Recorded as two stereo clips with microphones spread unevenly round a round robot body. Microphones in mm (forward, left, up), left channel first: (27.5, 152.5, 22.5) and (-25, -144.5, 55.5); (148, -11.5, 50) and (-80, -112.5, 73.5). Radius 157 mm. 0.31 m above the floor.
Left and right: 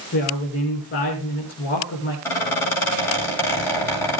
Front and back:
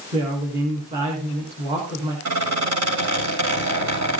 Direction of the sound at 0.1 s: 135° left.